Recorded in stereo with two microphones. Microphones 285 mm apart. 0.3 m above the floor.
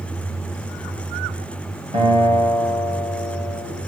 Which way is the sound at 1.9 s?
20° right (ahead or behind).